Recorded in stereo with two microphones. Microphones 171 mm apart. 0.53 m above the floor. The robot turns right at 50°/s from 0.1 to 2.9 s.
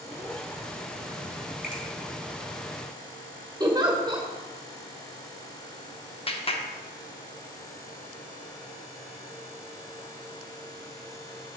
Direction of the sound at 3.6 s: 25° right (ahead or behind).